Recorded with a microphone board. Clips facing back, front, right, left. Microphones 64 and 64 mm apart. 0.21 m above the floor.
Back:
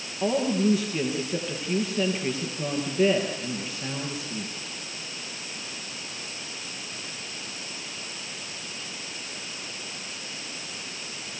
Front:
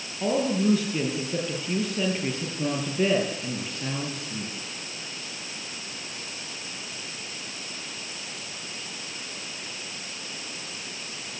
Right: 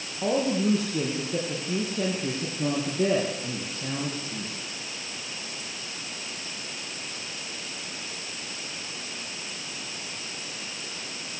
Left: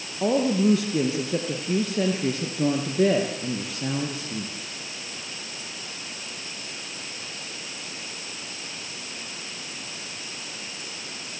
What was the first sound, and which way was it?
A woman speaking, 95° left.